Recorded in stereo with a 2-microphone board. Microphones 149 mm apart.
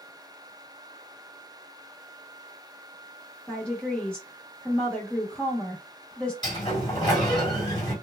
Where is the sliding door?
30° left (ahead or behind), 1.6 m.